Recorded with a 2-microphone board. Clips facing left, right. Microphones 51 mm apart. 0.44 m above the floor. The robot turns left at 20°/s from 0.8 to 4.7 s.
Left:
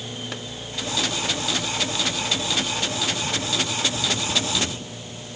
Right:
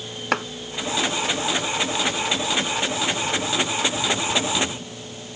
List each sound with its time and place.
0.3 s chopping: 75° right (ahead or behind)